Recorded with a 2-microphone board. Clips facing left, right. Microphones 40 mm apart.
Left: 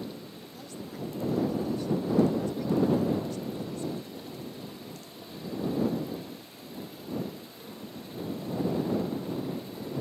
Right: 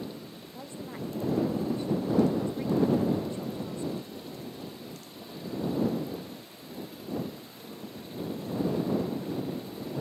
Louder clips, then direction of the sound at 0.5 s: Right 1 dB; 30° right (ahead or behind).